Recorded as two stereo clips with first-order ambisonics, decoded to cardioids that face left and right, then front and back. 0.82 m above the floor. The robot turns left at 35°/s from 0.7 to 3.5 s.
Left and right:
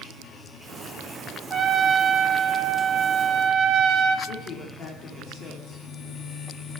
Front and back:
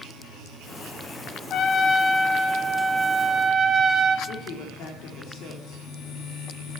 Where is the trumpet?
35° right, 0.7 m; by 4.2 s 105° right, 0.7 m.